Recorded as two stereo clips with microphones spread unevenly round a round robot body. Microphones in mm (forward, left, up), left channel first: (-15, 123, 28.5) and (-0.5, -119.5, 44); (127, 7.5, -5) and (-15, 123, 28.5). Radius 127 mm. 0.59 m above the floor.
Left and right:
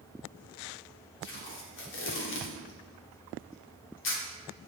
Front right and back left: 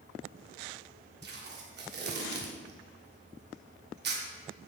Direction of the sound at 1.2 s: 115° left.